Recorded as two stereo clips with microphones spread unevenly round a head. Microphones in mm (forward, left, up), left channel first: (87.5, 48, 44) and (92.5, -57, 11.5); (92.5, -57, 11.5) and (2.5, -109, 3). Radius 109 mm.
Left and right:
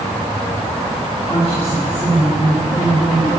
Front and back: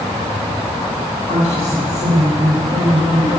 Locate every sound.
1.3 s a woman speaking: 155° left, 2 m; by 3.3 s 160° left, 4.5 m